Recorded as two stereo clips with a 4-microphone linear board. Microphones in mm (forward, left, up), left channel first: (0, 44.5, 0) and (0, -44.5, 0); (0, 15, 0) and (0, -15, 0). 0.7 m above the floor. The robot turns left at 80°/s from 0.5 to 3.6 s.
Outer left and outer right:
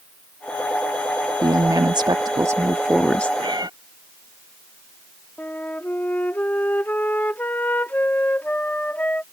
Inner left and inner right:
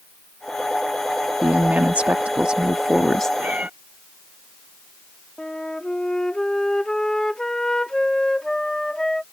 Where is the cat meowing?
65° right (ahead or behind); by 3.7 s 50° right (ahead or behind).